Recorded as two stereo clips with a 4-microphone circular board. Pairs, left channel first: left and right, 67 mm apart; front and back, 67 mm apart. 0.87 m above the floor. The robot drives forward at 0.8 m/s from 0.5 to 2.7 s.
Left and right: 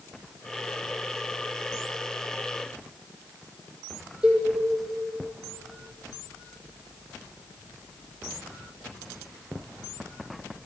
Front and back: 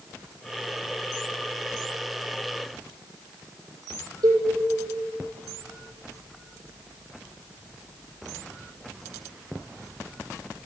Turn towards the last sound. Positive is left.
turn(degrees=-160)